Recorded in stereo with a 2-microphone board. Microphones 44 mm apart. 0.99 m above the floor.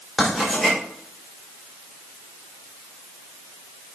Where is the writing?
15° right (ahead or behind), 3.5 m.